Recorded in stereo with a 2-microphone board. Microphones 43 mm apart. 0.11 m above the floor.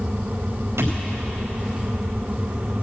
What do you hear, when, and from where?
0.8 s a thud: 85° right, 5 m